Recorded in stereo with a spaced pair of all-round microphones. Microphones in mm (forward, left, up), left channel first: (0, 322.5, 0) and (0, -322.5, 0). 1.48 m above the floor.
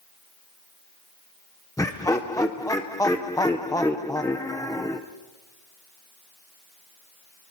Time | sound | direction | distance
1.8 | laughter | 5° left (ahead or behind) | 0.5 m